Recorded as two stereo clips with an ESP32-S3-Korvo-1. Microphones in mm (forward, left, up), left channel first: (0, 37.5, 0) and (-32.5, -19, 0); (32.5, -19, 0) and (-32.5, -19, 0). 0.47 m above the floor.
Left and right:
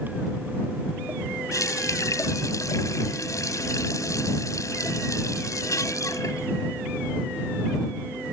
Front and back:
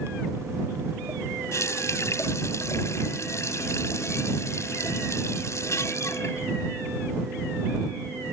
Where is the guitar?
I don't hear a guitar.